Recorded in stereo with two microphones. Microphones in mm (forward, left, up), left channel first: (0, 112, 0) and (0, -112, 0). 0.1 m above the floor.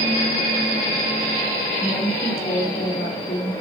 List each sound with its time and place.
1.8 s a woman speaking: 45° left (ahead or behind), 2 m